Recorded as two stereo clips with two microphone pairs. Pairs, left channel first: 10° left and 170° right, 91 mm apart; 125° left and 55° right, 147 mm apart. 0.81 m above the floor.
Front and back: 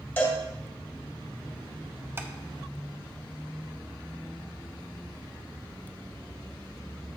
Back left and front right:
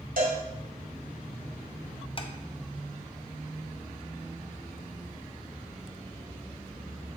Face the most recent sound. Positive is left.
turn(degrees=145)